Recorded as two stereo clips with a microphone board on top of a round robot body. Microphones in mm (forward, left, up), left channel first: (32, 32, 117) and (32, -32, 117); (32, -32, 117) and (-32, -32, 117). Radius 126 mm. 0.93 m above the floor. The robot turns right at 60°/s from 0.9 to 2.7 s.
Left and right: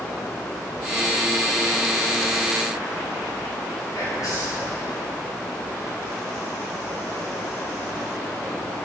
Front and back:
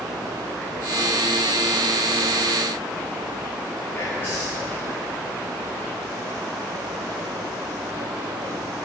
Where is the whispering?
60° left, 2 m.